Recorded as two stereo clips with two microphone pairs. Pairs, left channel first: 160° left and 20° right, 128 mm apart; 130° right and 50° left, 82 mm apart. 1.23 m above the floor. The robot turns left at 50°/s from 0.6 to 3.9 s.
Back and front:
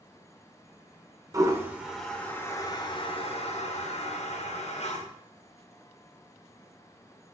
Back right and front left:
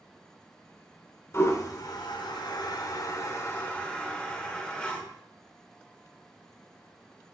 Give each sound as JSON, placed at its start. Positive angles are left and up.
{"t": 1.3, "sound": "a toilet flushing", "azimuth_deg": -75, "distance_m": 0.6}